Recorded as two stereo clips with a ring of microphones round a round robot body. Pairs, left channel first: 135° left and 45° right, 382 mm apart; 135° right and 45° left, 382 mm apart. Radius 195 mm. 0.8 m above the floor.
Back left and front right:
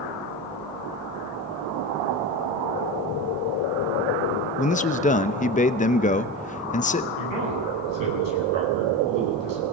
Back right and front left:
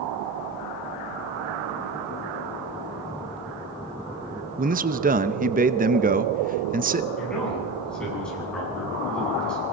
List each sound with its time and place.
4.6 s a man speaking: 85° left, 0.8 m
7.2 s a man speaking: 50° right, 8.5 m